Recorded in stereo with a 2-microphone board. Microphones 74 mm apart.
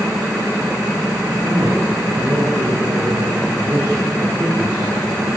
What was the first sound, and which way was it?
A man speaking, 50° right (ahead or behind).